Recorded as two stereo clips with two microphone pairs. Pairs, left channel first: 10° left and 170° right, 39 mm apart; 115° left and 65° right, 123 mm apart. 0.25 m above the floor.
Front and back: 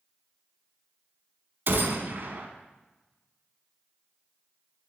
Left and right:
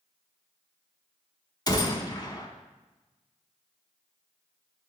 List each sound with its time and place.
1.7 s a gunshot: 165° left, 0.9 m